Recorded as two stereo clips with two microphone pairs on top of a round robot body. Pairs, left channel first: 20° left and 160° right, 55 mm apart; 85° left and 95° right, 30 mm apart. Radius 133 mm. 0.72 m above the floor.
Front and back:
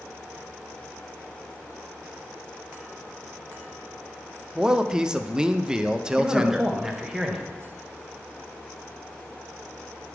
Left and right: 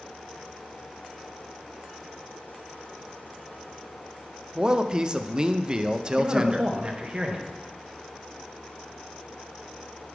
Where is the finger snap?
No finger snap in this recording.